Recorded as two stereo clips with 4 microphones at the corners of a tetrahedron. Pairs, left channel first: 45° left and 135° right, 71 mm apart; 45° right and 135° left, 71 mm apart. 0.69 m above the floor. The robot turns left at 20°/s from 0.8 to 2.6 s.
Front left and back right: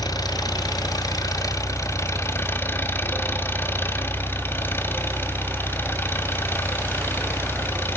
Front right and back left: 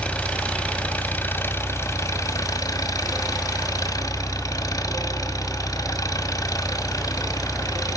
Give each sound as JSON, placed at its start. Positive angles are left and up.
{"t": 0.0, "sound": "an engine running", "azimuth_deg": 25, "distance_m": 1.2}